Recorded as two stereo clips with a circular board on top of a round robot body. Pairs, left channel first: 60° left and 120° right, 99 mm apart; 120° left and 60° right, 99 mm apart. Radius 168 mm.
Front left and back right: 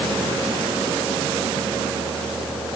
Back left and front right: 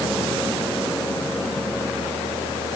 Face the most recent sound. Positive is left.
No sound to turn to.